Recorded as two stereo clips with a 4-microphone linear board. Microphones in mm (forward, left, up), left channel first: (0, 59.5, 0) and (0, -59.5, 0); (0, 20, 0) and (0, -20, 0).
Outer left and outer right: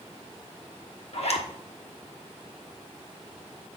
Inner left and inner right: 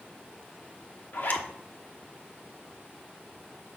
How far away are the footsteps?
No footsteps in this recording.